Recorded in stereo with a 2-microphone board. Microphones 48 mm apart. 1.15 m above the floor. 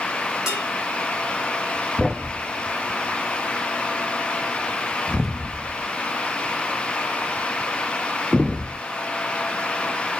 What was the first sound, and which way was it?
Dishes clattering, 10° right (ahead or behind).